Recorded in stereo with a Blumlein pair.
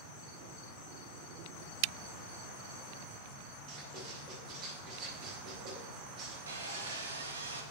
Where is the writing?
30° right, 2.5 m.